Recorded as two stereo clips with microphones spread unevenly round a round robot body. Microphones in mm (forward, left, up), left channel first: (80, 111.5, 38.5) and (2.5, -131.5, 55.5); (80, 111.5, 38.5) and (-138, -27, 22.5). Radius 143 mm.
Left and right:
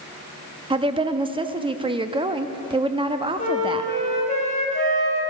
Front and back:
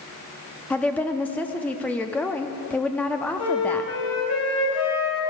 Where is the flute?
10° left, 4.5 m.